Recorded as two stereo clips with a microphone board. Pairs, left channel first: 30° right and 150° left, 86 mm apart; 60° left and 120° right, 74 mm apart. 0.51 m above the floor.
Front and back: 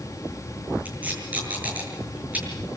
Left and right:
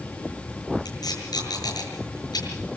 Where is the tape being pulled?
80° left, 7.5 m.